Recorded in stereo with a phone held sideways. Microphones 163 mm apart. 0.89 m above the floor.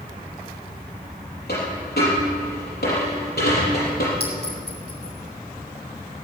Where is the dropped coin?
80° left, 5.5 m.